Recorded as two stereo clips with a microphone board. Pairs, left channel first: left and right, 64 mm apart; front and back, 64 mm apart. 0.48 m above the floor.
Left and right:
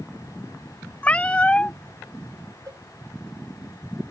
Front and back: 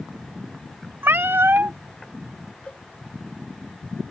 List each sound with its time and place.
1.0 s a cat meowing: 150° left
2.7 s a cowbell: 70° right